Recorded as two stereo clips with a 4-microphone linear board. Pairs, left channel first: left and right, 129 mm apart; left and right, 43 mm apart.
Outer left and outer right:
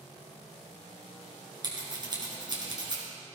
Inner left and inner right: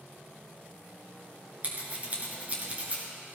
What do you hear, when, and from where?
1.6 s scissors: 35° right (ahead or behind), 3.5 m